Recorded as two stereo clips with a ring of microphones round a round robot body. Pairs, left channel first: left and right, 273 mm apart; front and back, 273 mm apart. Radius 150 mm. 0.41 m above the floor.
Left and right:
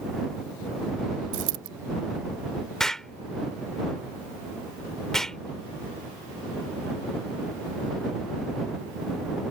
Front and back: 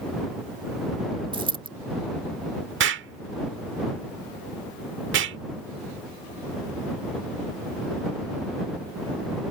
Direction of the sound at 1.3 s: 110° right.